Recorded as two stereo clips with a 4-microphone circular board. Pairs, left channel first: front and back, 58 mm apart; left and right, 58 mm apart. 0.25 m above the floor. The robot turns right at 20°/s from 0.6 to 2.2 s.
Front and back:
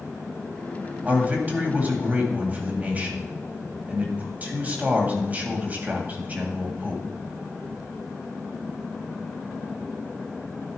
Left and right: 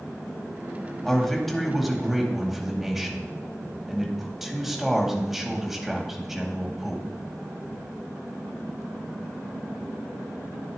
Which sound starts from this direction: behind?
A man speaking, at 1.1 s.